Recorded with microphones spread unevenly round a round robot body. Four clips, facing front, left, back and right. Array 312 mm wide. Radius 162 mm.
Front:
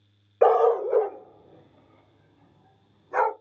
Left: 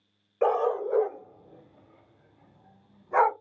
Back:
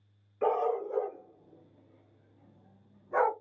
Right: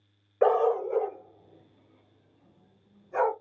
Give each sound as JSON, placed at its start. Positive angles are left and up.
{"t": 0.4, "sound": "a dog barking", "azimuth_deg": -15, "distance_m": 0.8}